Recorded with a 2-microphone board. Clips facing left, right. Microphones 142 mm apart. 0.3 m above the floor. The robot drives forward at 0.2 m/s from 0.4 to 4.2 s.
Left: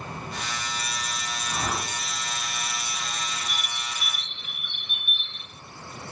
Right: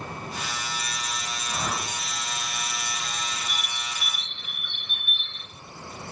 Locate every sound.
1.5 s a whoosh: 60° left (ahead or behind), 3.5 m
3.5 s a bird: 10° left (ahead or behind), 0.9 m